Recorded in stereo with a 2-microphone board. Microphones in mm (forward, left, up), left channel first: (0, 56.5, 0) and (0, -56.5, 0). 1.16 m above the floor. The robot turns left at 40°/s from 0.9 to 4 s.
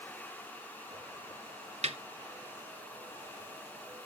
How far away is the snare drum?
About 0.9 m.